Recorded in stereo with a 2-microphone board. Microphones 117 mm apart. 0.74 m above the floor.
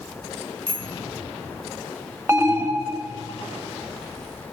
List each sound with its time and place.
0.7 s a bicycle bell: 5° right (ahead or behind), 4.5 m
2.3 s an alarm: 20° right (ahead or behind), 1.8 m